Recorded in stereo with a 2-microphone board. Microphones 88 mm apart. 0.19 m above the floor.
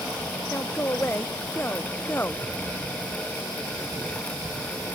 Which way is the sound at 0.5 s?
25° left (ahead or behind).